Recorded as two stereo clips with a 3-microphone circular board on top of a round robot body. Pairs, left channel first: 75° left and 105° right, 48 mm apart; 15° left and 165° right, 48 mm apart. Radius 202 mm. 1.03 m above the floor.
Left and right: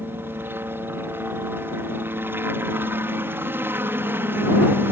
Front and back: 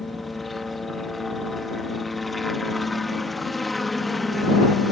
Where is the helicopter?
75° right.